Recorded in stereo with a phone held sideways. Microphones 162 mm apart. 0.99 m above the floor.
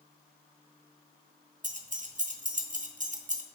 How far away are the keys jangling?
About 0.7 m.